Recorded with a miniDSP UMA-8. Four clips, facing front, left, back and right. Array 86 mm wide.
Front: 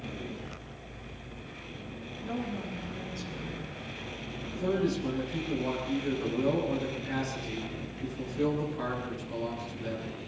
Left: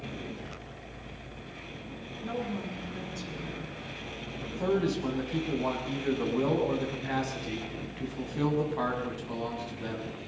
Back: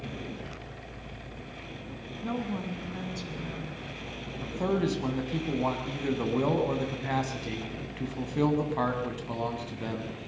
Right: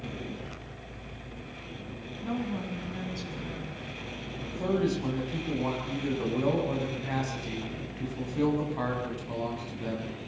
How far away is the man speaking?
About 7 m.